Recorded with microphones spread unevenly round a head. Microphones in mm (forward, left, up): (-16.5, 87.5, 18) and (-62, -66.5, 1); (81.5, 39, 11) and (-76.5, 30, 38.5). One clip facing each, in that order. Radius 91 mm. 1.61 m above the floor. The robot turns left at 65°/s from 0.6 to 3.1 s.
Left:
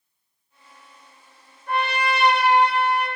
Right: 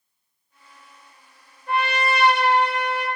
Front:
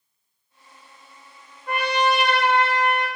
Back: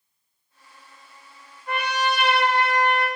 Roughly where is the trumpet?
Ahead.